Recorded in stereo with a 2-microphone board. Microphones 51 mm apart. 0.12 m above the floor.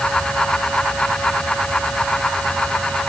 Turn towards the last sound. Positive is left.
No sound to turn to.